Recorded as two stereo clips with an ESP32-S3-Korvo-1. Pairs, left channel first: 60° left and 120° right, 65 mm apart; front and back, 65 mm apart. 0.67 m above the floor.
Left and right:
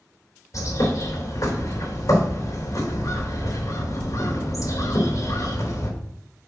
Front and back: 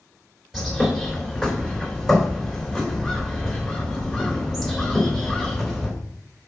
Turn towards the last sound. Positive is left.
turn(degrees=90)